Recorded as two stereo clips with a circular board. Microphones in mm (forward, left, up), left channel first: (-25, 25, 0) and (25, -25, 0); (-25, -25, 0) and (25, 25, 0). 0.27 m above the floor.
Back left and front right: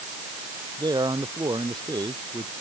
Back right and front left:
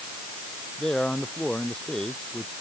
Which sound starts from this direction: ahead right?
A man speaking, at 0.8 s.